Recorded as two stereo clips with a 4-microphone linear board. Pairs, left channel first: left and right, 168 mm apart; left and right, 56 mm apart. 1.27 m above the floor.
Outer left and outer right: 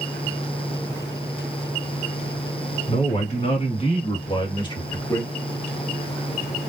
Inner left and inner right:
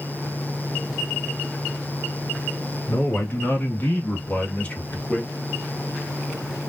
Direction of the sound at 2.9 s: 45° left (ahead or behind).